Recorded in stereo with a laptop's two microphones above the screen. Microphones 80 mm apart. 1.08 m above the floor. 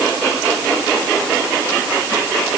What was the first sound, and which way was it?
Only background noise.